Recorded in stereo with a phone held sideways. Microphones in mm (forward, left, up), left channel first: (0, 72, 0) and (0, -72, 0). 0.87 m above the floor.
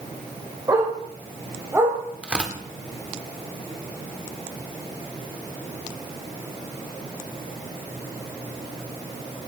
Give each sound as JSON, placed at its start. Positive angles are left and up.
{"t": 0.7, "sound": "a dog barking", "side_deg": -25, "distance_m": 8.0}
{"t": 2.2, "sound": "tearing paper", "side_deg": -10, "distance_m": 1.8}